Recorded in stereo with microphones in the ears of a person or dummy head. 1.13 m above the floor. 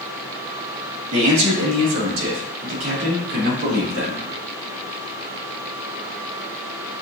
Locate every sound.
1.1 s a man speaking: 80° right, 2 m; by 4.2 s 50° right (ahead or behind), 2.5 m